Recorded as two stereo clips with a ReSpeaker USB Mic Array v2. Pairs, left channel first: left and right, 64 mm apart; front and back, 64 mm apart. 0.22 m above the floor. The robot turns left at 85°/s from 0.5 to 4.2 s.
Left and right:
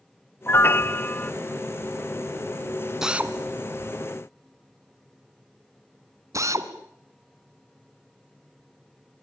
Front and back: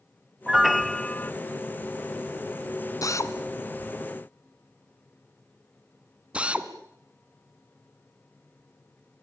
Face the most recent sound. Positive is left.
turn(degrees=-110)